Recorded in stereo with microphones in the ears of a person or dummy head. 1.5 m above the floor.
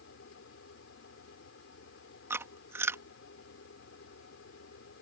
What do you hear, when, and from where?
0.0 s a fan: 75° left (ahead or behind)
2.3 s chewing: 15° right (ahead or behind)